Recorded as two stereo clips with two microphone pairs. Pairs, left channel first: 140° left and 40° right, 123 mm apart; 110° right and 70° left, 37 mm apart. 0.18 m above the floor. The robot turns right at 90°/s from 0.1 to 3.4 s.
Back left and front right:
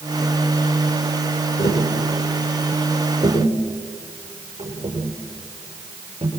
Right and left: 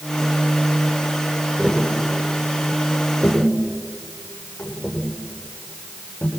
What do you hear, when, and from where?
1.6 s tapping: 120° left, 8.5 m; by 6.3 s 80° right, 8.5 m